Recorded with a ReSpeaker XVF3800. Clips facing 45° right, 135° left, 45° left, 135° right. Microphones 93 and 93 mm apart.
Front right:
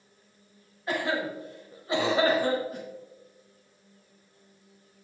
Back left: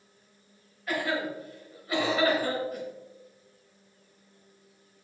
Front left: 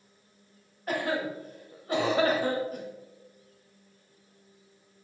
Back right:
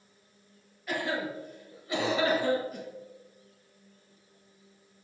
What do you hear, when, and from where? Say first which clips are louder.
0.9 s a cough: front right 1 dB, front left 2 dB; 15° left, 2.0 m